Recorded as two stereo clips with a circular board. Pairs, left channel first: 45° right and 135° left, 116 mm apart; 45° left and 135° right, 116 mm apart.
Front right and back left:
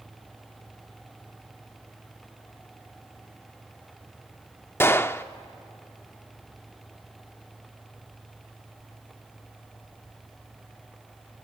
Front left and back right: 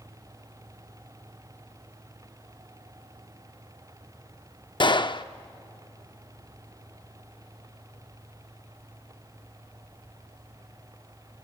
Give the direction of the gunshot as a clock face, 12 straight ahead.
11 o'clock.